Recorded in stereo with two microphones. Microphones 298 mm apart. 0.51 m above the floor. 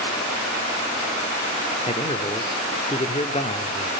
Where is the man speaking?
20° left (ahead or behind), 1.1 m.